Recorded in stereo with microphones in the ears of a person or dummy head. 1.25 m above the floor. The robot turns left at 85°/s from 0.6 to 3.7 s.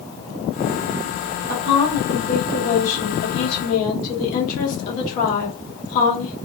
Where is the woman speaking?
125° right, 1.1 m; by 6.4 s 50° left, 1.1 m.